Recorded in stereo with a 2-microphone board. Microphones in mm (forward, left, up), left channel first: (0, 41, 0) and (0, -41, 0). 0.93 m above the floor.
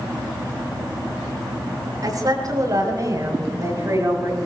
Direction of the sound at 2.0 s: 50° right (ahead or behind).